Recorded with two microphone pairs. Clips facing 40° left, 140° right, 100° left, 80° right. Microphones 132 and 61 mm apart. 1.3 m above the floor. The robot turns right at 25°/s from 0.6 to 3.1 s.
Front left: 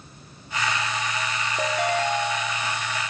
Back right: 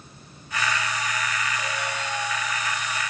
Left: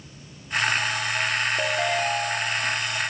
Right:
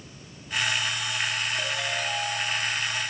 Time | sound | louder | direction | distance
1.6 | a ringtone | front left 7 dB, left 6 dB | 55° left | 2 m